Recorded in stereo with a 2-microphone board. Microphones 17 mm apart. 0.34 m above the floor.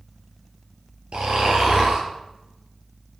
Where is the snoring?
80° right, 2.5 m.